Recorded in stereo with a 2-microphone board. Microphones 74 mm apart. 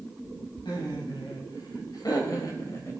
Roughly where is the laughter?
Left.